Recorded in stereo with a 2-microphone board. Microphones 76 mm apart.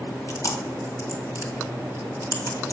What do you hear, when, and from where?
0.3 s chewing: 50° left (ahead or behind), 2 m